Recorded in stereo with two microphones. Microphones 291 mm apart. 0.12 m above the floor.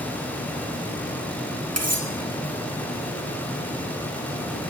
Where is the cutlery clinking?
60° right (ahead or behind), 2.5 m.